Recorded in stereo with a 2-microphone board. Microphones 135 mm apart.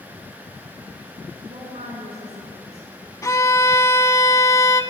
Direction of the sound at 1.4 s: 65° right (ahead or behind).